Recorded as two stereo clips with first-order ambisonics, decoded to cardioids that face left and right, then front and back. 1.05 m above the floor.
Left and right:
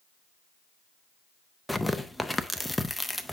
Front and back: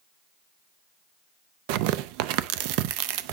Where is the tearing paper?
Straight behind, 0.5 m.